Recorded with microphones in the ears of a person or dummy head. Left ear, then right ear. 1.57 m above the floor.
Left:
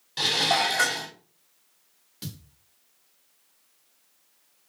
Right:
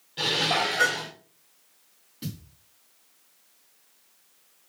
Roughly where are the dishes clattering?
Left.